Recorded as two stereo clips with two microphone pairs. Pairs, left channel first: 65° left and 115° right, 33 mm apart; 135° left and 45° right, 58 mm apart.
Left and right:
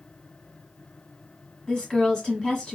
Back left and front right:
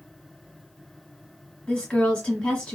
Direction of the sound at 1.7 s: 95° left.